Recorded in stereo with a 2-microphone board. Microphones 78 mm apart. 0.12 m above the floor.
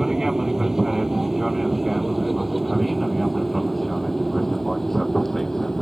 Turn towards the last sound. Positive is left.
turn(degrees=5)  # may be behind; listen again after turning